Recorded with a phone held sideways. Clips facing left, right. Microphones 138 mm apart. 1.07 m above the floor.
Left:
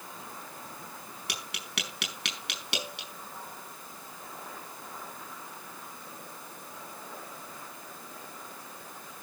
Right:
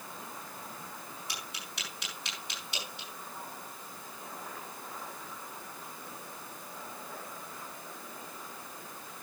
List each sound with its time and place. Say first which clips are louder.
1.3 s tapping: left 3 dB; 80° left, 4.5 m